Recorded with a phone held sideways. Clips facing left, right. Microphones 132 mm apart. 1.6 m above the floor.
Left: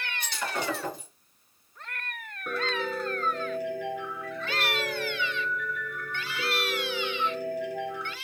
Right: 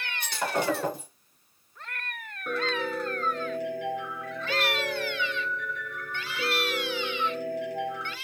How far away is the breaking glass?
About 3 m.